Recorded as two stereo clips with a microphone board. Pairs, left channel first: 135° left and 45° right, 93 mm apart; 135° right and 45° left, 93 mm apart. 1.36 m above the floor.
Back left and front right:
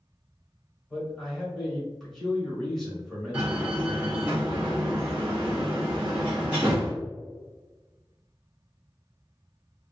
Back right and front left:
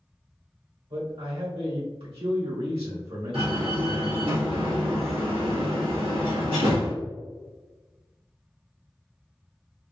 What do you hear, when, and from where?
0.9 s a man speaking: 45° left, 2.0 m
3.3 s a door slam: 30° left, 1.6 m